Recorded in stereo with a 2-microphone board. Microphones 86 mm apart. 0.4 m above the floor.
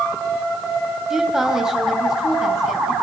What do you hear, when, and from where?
1.1 s a woman speaking: 5° right (ahead or behind), 2.5 m